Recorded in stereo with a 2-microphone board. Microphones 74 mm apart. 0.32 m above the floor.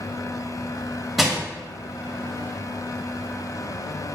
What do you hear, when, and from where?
1.2 s crushing: centre (ahead or behind), 2 m